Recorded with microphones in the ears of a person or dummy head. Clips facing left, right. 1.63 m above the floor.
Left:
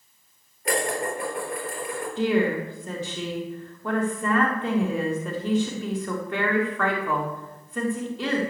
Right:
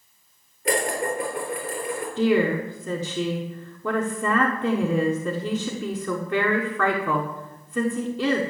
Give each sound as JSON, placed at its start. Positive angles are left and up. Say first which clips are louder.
{"t": 0.7, "sound": "dishes clattering", "louder": "right 2 dB", "side_deg": -80, "distance_m": 4.0}
{"t": 2.2, "sound": "a woman speaking", "louder": "right 2 dB", "side_deg": -85, "distance_m": 1.4}